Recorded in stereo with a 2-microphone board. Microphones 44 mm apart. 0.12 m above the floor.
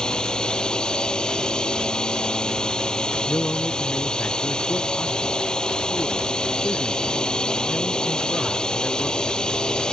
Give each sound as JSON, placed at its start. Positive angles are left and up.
{"t": 0.0, "sound": "a drone", "side_deg": 15}
{"t": 3.3, "sound": "a man speaking", "side_deg": 40}